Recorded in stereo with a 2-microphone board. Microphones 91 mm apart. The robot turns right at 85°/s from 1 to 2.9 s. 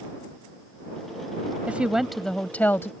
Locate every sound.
1.7 s a woman speaking: 15° right (ahead or behind); by 2.9 s 25° left (ahead or behind)